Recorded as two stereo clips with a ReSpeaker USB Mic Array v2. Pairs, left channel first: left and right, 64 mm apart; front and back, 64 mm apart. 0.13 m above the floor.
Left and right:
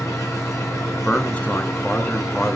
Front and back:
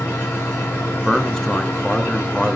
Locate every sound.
0.0 s an engine running: 60° left, 5.5 m
1.1 s a man speaking: 65° left, 1.1 m